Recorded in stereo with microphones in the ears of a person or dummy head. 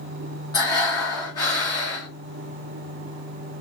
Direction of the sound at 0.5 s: 25° left (ahead or behind).